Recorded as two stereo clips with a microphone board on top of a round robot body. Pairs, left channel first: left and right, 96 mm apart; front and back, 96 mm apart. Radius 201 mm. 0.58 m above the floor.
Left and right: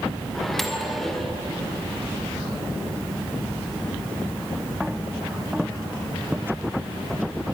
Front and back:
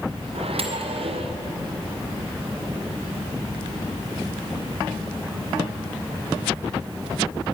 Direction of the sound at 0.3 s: 175° left.